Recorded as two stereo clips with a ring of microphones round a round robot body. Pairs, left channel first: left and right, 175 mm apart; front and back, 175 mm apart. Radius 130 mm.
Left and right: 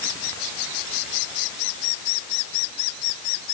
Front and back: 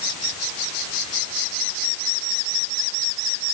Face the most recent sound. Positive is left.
No sound to turn to.